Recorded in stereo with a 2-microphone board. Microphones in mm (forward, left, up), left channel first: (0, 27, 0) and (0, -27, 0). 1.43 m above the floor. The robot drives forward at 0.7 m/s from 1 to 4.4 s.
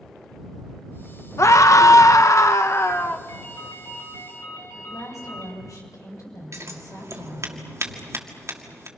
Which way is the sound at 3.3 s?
75° left (ahead or behind).